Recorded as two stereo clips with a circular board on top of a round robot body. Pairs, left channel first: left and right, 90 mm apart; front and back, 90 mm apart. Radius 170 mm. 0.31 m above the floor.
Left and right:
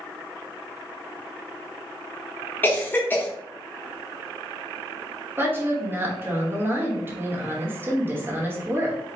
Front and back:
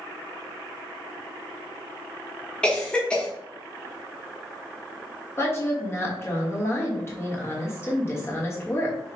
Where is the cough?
65° left, 1.3 m.